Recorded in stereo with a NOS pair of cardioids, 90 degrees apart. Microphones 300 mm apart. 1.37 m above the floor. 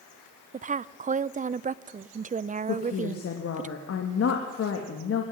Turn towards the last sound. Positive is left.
turn(degrees=50)